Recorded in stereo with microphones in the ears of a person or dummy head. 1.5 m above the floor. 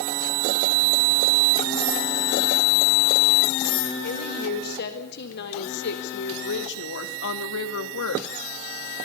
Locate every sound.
4.0 s a woman speaking: 55° left (ahead or behind), 5 m; by 8.3 s 80° left, 2.5 m